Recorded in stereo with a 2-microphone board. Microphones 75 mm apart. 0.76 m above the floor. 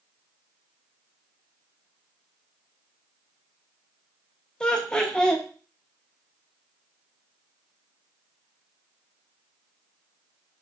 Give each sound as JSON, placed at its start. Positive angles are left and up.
{"t": 4.6, "sound": "laughter", "side_deg": 10, "distance_m": 0.6}